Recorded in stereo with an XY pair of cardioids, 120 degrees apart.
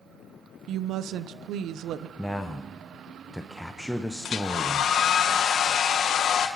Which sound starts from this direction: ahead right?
A woman speaking, at 0.7 s.